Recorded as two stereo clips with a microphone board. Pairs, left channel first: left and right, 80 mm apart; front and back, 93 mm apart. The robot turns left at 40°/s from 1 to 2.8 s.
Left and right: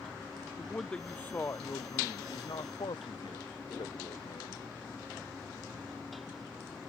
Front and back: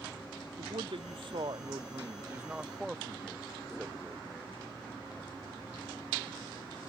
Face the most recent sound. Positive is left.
turn(degrees=95)